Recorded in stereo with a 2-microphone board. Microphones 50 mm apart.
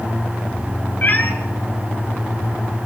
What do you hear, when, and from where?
1.0 s a cat meowing: 40° left (ahead or behind), 3 m